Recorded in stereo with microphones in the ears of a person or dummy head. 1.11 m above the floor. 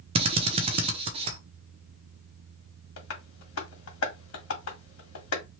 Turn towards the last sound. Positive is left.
turn(degrees=85)